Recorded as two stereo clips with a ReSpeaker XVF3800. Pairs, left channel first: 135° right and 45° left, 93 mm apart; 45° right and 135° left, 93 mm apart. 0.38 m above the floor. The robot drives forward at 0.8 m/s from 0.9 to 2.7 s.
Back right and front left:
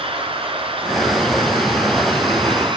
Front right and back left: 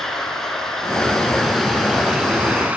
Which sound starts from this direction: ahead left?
Running water, at 0.0 s.